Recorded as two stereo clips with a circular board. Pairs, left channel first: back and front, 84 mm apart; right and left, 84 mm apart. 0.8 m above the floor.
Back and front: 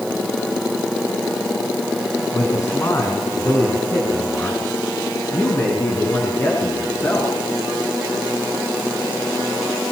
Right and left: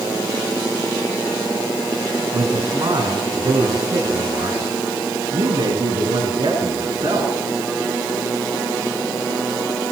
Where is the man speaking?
125° left, 9 m; by 7.3 s 120° left, 12 m.